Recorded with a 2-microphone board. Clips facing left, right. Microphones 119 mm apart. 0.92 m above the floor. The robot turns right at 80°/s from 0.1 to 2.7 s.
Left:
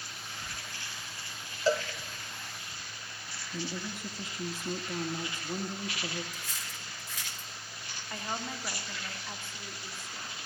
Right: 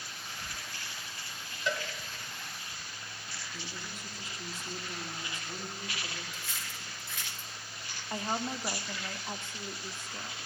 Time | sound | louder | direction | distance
1.7 | a cowbell | left 7 dB | 35° left (ahead or behind) | 1.8 m
3.5 | a woman speaking | left 10 dB | 50° left (ahead or behind) | 2.0 m
6.3 | cutlery clinking | even | 40° left (ahead or behind) | 2 m
8.1 | a woman speaking | right 4 dB | 20° right (ahead or behind) | 2.5 m